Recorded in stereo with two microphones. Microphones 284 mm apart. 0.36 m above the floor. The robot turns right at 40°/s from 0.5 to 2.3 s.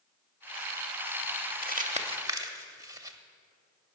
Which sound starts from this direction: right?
Crumpling, at 1.6 s.